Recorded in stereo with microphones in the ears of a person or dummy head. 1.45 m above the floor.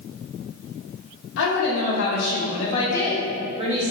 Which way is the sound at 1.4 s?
70° left (ahead or behind).